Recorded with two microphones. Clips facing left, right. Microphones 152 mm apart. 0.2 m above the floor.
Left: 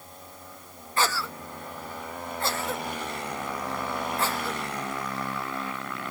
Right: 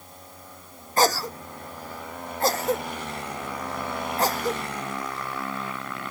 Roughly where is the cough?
Right.